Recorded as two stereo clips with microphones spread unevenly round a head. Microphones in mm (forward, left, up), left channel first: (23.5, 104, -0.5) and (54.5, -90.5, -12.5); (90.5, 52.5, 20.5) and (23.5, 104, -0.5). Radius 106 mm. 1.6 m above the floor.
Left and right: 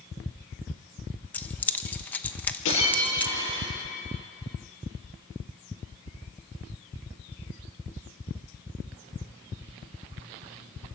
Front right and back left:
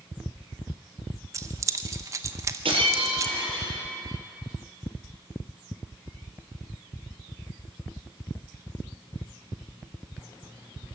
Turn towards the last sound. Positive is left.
turn(degrees=130)